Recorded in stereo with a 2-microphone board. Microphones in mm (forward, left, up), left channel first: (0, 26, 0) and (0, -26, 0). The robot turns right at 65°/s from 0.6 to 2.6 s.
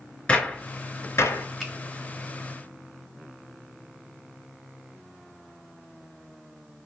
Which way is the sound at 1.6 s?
Centre (ahead or behind).